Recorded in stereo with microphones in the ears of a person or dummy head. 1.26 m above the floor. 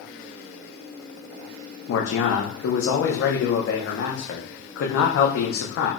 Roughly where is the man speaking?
Left.